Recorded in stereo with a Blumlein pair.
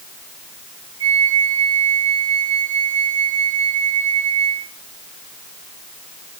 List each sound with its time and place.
1.0 s a flute: 65° right, 1.4 m